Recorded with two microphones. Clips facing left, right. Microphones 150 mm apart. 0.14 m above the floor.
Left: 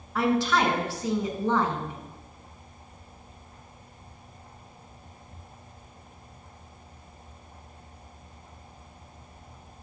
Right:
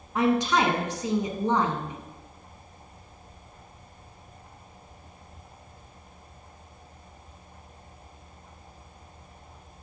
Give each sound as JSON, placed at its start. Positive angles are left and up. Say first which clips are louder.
{"t": 0.1, "sound": "a woman speaking", "louder": "right 1 dB", "side_deg": -20, "distance_m": 1.0}